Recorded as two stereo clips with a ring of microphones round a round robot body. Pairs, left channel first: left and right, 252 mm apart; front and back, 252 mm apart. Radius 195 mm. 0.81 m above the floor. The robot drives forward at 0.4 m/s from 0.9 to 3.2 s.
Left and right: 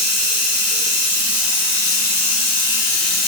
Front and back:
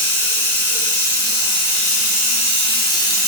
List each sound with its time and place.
0.0 s running water: 45° left, 1.7 m; by 3.3 s 75° left, 1.3 m